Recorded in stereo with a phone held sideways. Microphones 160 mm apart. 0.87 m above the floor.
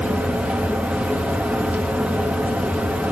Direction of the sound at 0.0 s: 10° right (ahead or behind).